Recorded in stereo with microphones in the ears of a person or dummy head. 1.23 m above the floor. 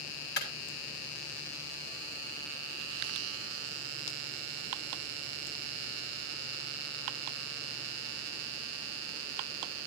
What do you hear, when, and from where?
0.4 s a clap: 65° left (ahead or behind), 7.5 m